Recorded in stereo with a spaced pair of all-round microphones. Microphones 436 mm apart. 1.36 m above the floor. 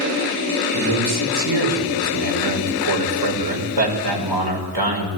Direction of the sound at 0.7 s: 60° right (ahead or behind).